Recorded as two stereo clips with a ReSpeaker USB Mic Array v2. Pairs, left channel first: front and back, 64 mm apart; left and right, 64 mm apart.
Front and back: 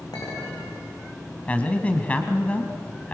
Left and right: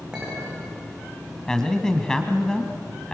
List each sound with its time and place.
0.1 s a clink: 15° right, 9.5 m
1.5 s a man speaking: 25° left, 1.6 m